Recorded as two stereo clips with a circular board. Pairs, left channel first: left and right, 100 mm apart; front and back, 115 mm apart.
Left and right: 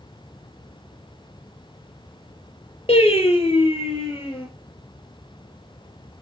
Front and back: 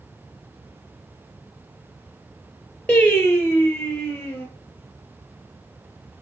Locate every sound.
2.9 s singing: 80° left, 3.5 m